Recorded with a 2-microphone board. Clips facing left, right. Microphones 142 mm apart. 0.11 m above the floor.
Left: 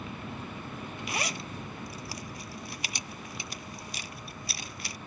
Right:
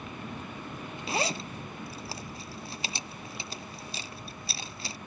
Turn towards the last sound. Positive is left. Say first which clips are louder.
# right 6 dB
turn(degrees=-30)  # may be behind; listen again after turning